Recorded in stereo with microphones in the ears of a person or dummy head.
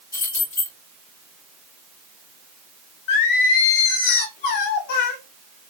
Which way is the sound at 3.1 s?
50° left (ahead or behind).